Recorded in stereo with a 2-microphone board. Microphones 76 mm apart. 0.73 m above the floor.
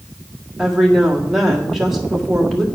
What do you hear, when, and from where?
0.6 s a woman speaking: 5° right (ahead or behind), 1.7 m